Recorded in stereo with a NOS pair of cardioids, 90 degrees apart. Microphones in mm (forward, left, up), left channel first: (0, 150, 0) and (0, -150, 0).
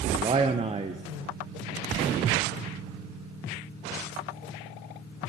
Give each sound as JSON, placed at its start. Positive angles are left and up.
{"t": 0.1, "sound": "a man speaking", "azimuth_deg": -20, "distance_m": 0.6}